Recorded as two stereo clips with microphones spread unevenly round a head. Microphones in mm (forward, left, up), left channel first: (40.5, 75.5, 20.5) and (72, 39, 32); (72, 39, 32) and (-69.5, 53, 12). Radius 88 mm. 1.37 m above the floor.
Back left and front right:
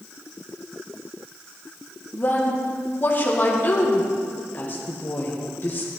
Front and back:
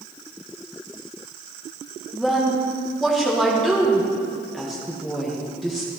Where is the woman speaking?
85° left, 1.8 m.